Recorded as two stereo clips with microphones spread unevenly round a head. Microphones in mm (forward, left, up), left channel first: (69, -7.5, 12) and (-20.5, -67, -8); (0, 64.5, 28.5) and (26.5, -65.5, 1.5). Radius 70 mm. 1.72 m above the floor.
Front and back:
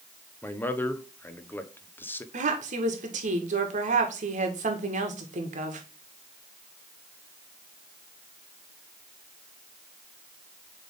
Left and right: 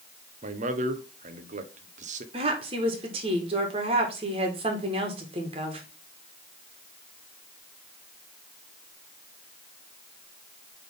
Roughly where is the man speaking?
Ahead right.